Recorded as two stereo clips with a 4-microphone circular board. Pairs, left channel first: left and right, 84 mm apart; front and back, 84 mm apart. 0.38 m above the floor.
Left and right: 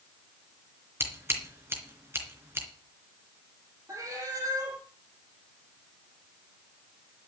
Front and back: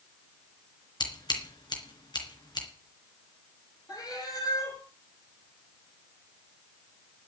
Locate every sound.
1.0 s scissors: 30° right, 3.5 m
3.9 s a cat meowing: 40° right, 6 m